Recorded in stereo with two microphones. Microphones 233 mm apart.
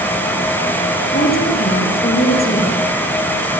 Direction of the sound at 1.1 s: 40° left (ahead or behind).